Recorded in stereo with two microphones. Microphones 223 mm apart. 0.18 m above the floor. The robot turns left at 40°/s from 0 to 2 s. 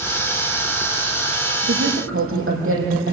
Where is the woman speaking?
80° right, 6.5 m; by 3.1 s 75° right (ahead or behind), 6.5 m.